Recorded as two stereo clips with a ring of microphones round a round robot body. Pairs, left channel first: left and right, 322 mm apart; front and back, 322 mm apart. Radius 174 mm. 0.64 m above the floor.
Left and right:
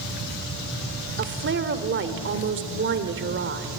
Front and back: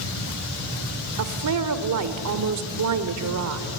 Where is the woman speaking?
145° right, 1.8 m.